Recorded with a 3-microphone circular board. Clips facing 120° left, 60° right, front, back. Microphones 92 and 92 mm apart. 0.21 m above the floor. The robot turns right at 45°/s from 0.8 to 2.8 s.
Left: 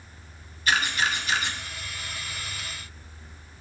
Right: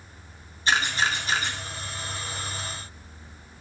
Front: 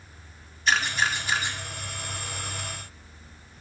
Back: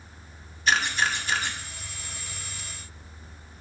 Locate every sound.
0.7 s a camera shutter: 90° right, 1.4 m; by 1.6 s 55° right, 1.4 m